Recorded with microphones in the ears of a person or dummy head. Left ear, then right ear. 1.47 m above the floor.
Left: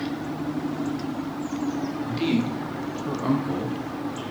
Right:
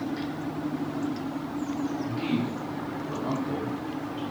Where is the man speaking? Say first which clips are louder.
Left 4 dB; 25° left (ahead or behind), 0.9 m; by 4.2 s 35° left (ahead or behind), 1.0 m.